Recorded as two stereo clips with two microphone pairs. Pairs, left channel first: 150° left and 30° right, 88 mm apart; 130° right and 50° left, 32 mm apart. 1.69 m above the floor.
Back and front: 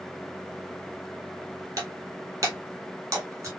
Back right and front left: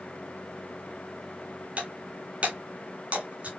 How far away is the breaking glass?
About 2.5 m.